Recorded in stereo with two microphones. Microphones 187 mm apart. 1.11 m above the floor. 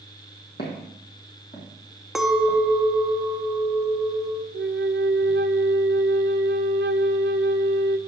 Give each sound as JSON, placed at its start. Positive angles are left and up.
{"t": 0.6, "sound": "footsteps", "side_deg": 60, "distance_m": 2.5}
{"t": 2.1, "sound": "a clink", "side_deg": 0, "distance_m": 0.9}
{"t": 4.5, "sound": "a flute", "side_deg": -75, "distance_m": 0.5}